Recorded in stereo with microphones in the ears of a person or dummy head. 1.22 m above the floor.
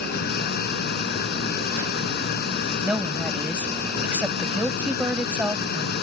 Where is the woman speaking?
10° right (ahead or behind).